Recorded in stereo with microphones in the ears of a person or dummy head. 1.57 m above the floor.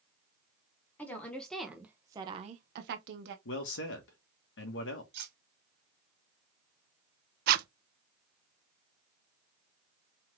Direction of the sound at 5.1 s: 55° right (ahead or behind).